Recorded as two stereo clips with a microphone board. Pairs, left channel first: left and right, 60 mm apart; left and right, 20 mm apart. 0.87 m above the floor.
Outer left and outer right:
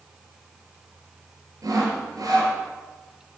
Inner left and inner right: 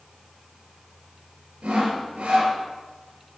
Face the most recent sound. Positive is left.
turn(degrees=-80)